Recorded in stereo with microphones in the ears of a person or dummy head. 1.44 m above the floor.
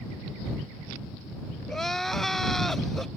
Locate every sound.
1.7 s crying: 5° left (ahead or behind)